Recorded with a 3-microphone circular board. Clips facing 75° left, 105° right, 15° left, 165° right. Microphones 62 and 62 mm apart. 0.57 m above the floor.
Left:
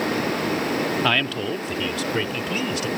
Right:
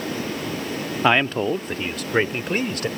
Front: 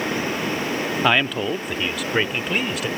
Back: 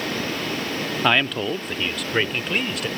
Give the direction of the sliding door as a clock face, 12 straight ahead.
No sliding door in this recording.